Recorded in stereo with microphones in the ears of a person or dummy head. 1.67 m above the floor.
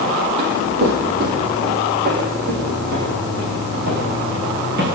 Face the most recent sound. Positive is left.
turn(degrees=-60)  # may be behind; listen again after turning